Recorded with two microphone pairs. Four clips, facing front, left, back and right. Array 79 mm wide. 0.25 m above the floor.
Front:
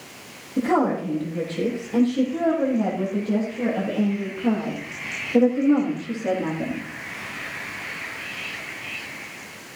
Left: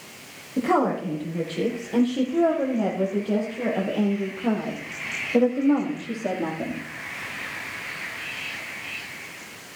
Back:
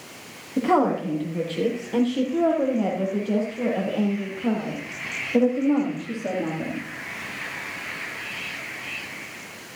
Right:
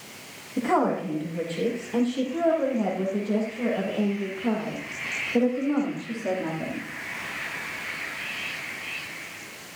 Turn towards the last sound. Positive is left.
turn(degrees=105)